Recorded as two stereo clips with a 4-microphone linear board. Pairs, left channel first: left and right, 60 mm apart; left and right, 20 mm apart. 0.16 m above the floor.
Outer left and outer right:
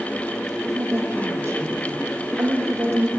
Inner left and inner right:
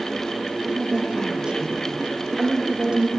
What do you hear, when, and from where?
0.7 s a woman speaking: 45° right (ahead or behind), 5.5 m